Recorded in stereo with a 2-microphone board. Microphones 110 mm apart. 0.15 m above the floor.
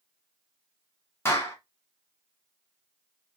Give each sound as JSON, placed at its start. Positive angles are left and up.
{"t": 1.2, "sound": "a clap", "side_deg": 20, "distance_m": 1.1}